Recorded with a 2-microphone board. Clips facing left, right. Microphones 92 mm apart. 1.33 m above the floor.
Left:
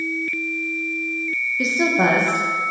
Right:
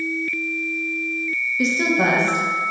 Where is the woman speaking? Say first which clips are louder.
Left 1 dB; 5° right (ahead or behind), 0.6 m; by 2.7 s 55° left (ahead or behind), 1.6 m.